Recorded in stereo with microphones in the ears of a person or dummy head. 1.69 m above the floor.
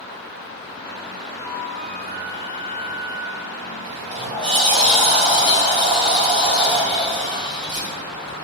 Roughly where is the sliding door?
Right.